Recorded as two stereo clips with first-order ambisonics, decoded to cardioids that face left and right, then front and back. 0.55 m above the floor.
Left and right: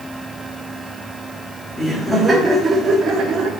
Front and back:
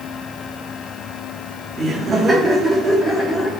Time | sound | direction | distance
1.8 | laughter | 150° left | 1.4 m